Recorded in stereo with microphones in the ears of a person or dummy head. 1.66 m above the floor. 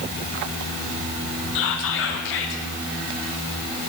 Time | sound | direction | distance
1.6 | whispering | 60° left (ahead or behind) | 0.6 m